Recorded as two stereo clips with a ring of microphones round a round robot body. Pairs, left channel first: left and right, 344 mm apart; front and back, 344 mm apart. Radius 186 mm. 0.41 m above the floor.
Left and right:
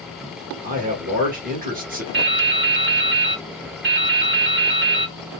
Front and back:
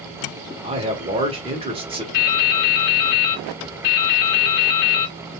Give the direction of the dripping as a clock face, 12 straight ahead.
1 o'clock.